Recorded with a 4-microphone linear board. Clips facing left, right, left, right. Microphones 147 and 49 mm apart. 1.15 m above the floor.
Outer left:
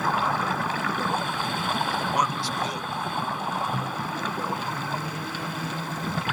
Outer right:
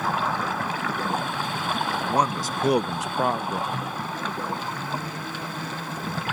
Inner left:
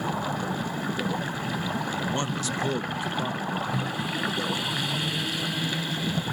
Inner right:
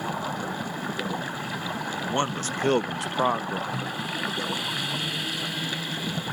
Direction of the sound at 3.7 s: 5° left (ahead or behind).